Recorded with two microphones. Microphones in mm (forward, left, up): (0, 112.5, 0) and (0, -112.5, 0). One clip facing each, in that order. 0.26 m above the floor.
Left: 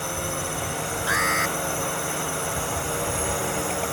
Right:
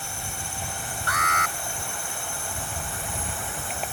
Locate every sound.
0.0 s a drone: 70° left (ahead or behind); by 3.9 s 75° left (ahead or behind)
1.1 s an alarm: 5° left (ahead or behind)